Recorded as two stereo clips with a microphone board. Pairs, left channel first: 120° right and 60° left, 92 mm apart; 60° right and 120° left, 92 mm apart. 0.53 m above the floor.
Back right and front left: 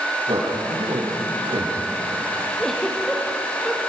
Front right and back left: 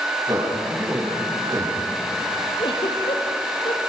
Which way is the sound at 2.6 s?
35° right.